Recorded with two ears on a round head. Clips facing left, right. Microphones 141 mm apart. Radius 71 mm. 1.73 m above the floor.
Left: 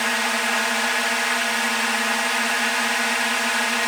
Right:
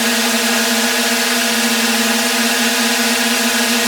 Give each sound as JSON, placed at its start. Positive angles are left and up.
{"t": 0.0, "sound": "a drone", "side_deg": -45}